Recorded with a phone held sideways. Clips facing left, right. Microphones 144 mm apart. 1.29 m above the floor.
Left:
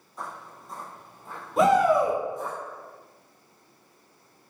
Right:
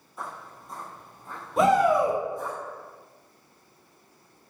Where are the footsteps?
5° right (ahead or behind), 1.4 m; by 2.6 s 20° left (ahead or behind), 1.6 m.